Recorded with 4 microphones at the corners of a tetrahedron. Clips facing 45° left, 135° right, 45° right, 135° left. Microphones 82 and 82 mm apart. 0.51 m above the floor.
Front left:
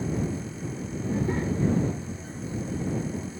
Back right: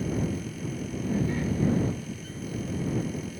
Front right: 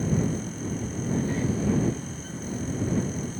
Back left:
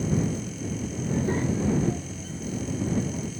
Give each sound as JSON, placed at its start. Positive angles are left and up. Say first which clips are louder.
{"t": 1.0, "sound": "a child speaking", "louder": "front left 1 dB, back left 1 dB", "azimuth_deg": 100}